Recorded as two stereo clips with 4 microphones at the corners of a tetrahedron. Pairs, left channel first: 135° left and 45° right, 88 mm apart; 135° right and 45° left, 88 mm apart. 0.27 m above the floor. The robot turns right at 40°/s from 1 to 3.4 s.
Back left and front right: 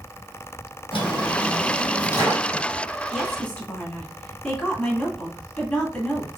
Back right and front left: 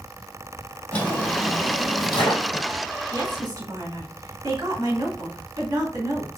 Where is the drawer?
150° left, 3 m; by 2.7 s 140° right, 3 m.